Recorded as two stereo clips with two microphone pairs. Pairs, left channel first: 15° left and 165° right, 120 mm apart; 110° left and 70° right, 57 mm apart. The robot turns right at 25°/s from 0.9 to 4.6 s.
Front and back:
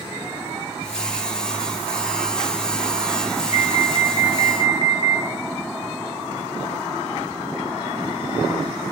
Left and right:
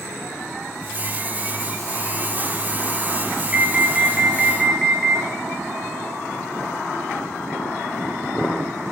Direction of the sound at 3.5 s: Straight ahead.